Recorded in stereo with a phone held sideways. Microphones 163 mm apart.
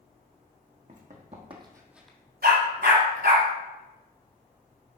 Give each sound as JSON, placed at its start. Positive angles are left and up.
{"t": 0.9, "sound": "running footsteps", "side_deg": -55, "distance_m": 2.0}
{"t": 2.4, "sound": "a dog barking", "side_deg": -70, "distance_m": 1.8}